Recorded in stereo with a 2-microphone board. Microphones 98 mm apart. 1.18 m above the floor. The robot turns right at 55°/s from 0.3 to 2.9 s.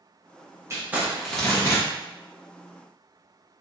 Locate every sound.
0.7 s crumpling: 30° right, 1.2 m; by 1.8 s 35° left, 1.2 m